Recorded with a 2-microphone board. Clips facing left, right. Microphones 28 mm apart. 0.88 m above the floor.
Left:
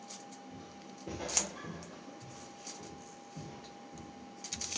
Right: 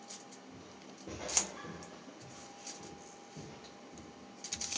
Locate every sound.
0.5 s footsteps: 20° left (ahead or behind), 8.5 m; by 4.7 s 15° right (ahead or behind), 8.5 m